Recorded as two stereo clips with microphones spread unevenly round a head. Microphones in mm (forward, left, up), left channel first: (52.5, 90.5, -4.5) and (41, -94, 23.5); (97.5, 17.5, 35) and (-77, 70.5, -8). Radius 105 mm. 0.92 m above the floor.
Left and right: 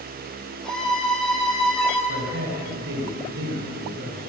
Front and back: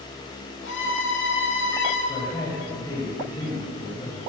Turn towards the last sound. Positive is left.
turn(degrees=-85)